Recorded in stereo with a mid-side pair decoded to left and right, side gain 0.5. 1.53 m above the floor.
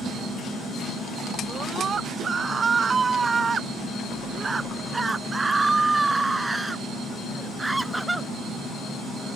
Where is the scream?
40° right; by 8.3 s 15° right.